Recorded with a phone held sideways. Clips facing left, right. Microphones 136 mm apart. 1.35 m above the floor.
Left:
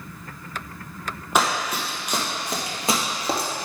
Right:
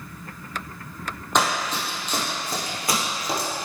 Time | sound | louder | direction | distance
1.4 | running footsteps | left 1 dB | 5° left (ahead or behind) | 2.0 m